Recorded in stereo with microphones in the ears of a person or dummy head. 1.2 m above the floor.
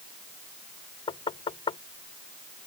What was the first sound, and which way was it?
Knocking, 30° left (ahead or behind).